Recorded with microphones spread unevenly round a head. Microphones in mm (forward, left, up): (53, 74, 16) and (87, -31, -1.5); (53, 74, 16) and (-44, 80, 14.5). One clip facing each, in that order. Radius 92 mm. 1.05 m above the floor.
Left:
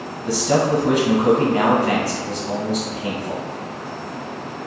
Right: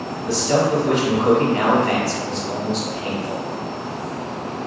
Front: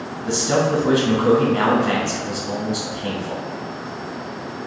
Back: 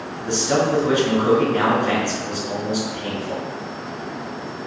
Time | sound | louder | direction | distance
0.3 | a man speaking | even, even | 55° left | 1.0 m